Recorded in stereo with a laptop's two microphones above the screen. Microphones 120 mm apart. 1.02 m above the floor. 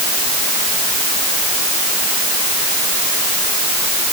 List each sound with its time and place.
Only background noise.